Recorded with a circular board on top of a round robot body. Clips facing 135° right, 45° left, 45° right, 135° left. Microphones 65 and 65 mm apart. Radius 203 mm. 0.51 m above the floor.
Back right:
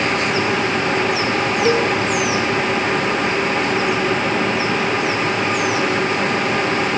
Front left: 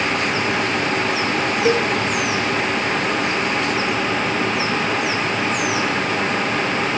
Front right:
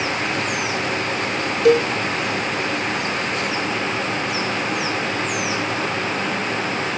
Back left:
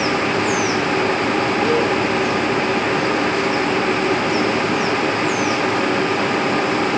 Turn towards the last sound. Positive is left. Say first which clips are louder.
# back right 1 dB, front right 7 dB
turn(degrees=-35)